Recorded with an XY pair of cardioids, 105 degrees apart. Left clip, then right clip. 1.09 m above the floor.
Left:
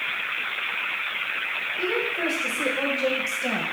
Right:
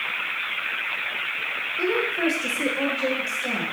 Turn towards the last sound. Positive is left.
turn(degrees=50)